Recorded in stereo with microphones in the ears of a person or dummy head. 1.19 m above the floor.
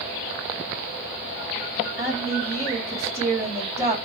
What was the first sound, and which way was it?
A woman speaking, 10° left (ahead or behind).